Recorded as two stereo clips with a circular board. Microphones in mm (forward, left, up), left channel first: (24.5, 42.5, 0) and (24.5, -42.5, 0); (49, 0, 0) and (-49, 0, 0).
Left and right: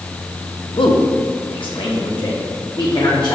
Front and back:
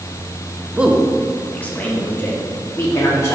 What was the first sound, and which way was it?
A man speaking, 105° left.